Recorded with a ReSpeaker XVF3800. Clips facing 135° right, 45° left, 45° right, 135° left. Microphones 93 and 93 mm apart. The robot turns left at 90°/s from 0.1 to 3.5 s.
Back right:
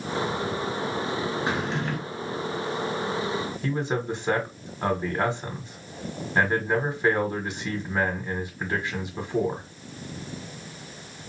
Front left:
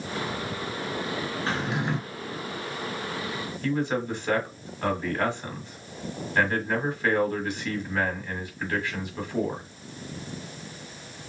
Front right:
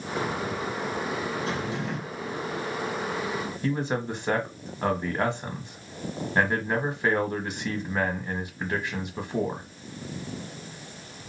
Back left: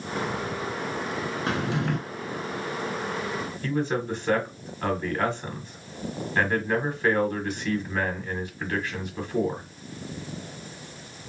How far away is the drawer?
About 0.8 m.